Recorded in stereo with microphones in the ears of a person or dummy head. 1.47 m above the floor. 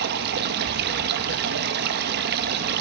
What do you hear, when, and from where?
0.0 s running water: 60° right (ahead or behind), 1.5 m